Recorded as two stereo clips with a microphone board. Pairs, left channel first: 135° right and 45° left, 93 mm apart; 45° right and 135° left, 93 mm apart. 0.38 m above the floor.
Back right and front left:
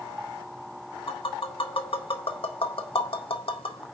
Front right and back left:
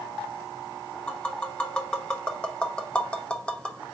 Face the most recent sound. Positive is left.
turn(degrees=-125)